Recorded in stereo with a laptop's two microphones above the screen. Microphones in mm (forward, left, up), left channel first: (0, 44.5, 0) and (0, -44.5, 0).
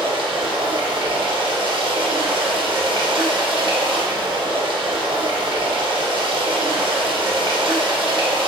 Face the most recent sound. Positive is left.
turn(degrees=-70)  # may be behind; listen again after turning